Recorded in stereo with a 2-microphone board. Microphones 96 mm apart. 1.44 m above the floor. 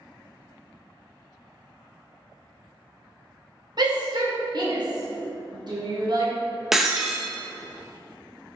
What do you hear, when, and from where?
3.8 s a shout: 50° right (ahead or behind), 1.7 m
6.7 s breaking glass: 5° right (ahead or behind), 0.7 m